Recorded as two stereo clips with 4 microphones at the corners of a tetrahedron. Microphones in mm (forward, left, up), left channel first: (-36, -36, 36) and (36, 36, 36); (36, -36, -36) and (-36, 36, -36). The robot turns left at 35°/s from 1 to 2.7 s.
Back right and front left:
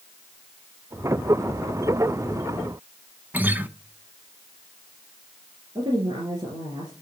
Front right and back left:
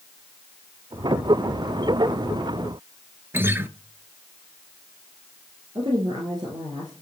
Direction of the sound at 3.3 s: 100° left.